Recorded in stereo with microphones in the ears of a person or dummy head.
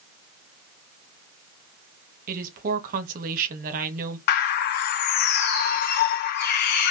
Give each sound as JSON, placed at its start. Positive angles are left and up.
{"t": 2.3, "sound": "a woman speaking", "side_deg": -50, "distance_m": 2.0}
{"t": 4.3, "sound": "a bird", "side_deg": 50, "distance_m": 0.9}